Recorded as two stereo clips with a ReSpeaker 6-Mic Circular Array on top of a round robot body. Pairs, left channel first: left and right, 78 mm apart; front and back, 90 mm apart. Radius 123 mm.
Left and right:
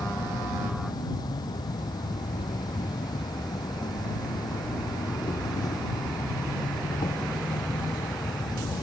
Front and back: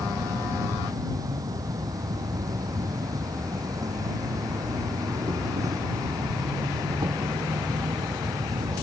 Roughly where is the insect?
Behind left.